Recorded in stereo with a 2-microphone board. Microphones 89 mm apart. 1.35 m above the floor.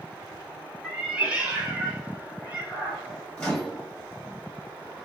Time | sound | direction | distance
0.8 | a cat meowing | 10° right (ahead or behind) | 0.9 m
3.4 | a microwave | 10° left (ahead or behind) | 1.6 m